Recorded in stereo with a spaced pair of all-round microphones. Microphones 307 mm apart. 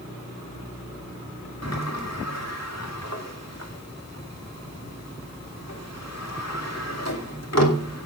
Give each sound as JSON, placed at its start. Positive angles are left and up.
{"t": 1.6, "sound": "a sliding door", "side_deg": 55, "distance_m": 2.5}